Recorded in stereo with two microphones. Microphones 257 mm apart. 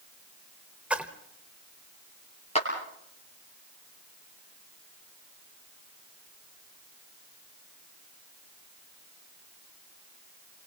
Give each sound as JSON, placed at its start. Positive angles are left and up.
{"t": 0.9, "sound": "a splash", "side_deg": -5, "distance_m": 1.2}
{"t": 2.5, "sound": "a clap", "side_deg": 25, "distance_m": 5.0}